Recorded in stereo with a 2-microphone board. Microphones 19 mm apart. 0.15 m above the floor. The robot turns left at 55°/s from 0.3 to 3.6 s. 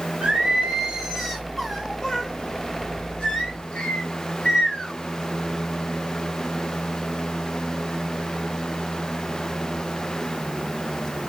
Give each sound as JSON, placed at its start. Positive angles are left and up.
{"t": 0.2, "sound": "singing", "azimuth_deg": -105, "distance_m": 1.2}